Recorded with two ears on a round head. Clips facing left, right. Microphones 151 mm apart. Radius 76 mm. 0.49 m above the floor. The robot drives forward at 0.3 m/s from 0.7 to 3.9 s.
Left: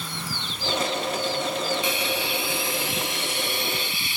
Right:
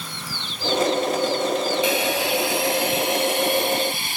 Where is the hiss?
65° right (ahead or behind); by 4.2 s 45° right (ahead or behind).